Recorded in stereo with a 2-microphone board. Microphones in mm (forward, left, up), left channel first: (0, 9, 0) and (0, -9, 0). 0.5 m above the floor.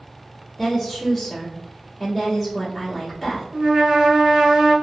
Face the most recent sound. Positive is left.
turn(degrees=-45)  # may be behind; listen again after turning